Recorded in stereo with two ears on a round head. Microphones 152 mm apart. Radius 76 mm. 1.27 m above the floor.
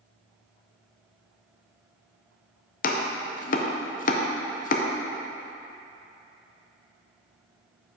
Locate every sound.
2.8 s chopping: 50° left (ahead or behind), 0.6 m